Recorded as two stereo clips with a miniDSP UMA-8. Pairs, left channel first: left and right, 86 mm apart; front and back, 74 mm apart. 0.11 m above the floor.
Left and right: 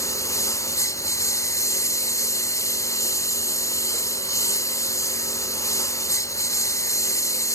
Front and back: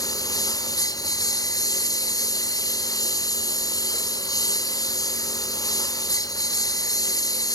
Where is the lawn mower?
35° left.